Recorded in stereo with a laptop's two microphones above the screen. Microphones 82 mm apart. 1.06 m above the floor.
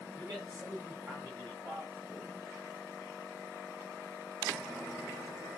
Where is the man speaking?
55° right (ahead or behind), 4 m; by 2.7 s 15° right (ahead or behind), 3.5 m.